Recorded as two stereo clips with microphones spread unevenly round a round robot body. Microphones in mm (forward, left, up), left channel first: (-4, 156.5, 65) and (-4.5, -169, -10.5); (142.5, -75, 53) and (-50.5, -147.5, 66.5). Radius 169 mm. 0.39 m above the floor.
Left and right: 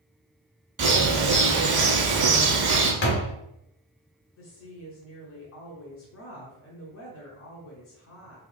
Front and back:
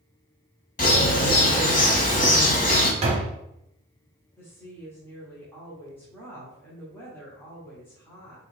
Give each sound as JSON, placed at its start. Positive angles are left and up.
{"t": 0.8, "sound": "a bird", "azimuth_deg": -30, "distance_m": 1.0}
{"t": 3.0, "sound": "a door slam", "azimuth_deg": 150, "distance_m": 0.6}
{"t": 4.4, "sound": "a woman speaking", "azimuth_deg": 75, "distance_m": 0.9}